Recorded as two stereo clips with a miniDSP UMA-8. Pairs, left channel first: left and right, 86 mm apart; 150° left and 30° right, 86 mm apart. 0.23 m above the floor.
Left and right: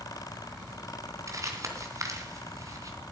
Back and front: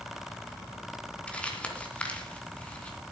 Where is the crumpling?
135° right, 2.5 m.